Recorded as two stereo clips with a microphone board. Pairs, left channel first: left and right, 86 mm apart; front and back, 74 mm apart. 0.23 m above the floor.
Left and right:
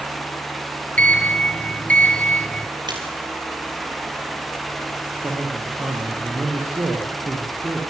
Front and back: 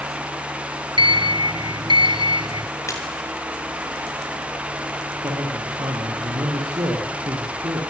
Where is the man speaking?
150° right, 8 m.